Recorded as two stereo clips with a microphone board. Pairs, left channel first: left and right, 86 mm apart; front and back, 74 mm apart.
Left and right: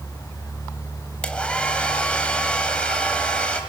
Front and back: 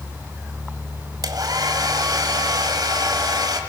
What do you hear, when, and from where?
1.2 s a hair dryer: 165° left, 1.4 m